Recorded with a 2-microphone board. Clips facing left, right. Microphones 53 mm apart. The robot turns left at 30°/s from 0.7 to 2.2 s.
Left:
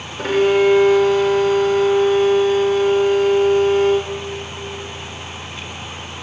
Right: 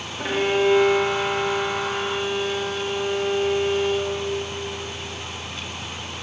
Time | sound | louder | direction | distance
0.2 | a violin | left 6 dB | 105° left | 2 m